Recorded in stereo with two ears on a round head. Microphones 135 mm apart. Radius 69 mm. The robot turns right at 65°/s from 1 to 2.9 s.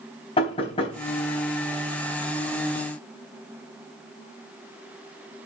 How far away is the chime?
No chime in this recording.